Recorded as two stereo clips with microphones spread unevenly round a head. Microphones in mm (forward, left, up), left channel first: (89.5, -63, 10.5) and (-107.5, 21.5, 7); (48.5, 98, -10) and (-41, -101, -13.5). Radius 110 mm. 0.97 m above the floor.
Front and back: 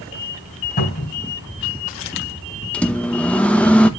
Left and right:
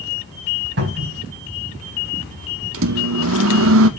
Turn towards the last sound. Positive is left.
turn(degrees=-110)